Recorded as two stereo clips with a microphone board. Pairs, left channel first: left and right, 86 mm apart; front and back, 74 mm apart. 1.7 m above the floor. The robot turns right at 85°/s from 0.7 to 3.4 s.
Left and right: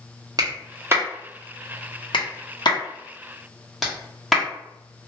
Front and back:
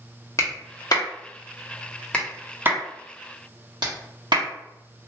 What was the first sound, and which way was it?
A clap, 50° right.